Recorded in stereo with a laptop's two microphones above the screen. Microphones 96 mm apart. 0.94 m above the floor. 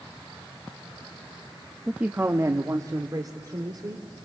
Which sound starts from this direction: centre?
A man speaking, at 1.9 s.